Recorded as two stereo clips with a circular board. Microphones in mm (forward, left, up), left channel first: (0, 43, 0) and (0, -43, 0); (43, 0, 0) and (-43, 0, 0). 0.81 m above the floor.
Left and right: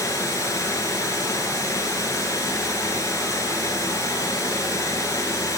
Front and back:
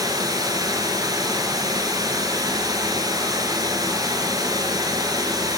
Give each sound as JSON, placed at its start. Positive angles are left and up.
{"t": 0.0, "sound": "running water", "azimuth_deg": 145, "distance_m": 2.5}